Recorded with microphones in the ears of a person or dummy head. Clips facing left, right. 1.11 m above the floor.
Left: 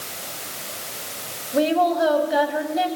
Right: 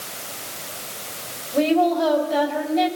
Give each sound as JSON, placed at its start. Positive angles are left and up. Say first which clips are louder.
{"t": 1.5, "sound": "a woman speaking", "louder": "right 1 dB", "side_deg": 15, "distance_m": 5.5}